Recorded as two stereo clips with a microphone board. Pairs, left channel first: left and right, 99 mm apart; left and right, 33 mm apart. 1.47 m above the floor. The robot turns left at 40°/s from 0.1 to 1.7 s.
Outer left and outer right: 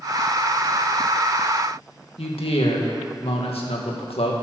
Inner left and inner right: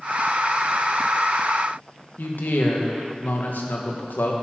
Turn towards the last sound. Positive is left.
turn(degrees=75)  # may be behind; listen again after turning